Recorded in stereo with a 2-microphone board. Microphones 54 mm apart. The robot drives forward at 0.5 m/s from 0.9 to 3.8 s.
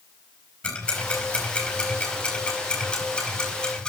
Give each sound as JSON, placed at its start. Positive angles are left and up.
{"t": 0.6, "sound": "ticking", "side_deg": 20, "distance_m": 4.0}